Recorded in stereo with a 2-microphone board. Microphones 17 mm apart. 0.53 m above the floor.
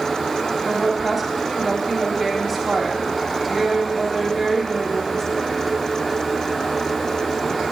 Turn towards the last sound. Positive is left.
turn(degrees=10)  # may be behind; listen again after turning